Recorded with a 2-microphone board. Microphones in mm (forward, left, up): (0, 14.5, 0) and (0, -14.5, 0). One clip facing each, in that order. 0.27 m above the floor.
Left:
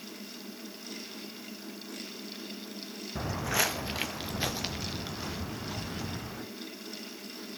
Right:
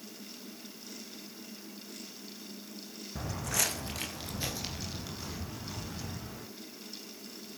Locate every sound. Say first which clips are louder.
3.1 s footsteps: left 4 dB; 20° left (ahead or behind), 0.9 m; by 6.4 s 35° left (ahead or behind), 3.5 m